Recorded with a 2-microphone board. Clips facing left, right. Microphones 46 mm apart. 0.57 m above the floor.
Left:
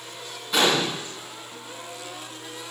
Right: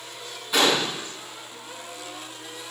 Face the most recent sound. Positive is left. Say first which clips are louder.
# even
turn(degrees=0)  # may be behind; listen again after turning